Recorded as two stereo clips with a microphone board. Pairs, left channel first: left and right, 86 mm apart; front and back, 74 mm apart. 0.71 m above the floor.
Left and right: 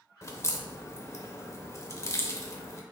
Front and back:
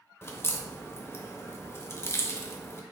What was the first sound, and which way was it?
A crack, 45° left.